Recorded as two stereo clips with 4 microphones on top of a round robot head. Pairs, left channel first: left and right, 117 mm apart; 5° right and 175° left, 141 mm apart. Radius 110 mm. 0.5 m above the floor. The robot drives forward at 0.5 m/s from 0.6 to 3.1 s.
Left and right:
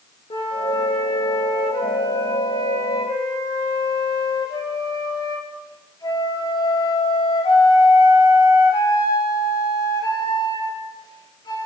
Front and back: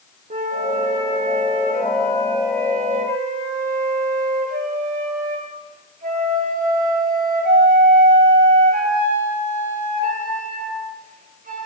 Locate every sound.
0.3 s a flute: 140° left, 6 m; by 11.7 s 145° left, 7 m